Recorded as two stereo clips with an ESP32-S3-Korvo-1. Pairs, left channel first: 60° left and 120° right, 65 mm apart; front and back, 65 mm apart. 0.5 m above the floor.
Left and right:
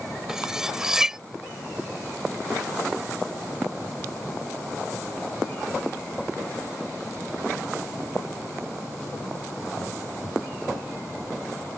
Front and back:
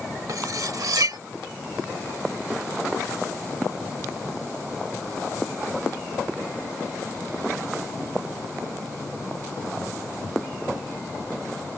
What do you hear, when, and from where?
0.3 s cutlery clinking: 160° left